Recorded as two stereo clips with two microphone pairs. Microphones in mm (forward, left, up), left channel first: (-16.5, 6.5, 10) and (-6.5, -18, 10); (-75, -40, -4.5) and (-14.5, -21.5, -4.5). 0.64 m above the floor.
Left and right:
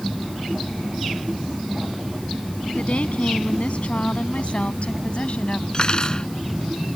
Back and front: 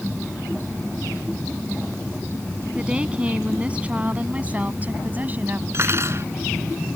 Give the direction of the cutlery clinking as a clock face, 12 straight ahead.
10 o'clock.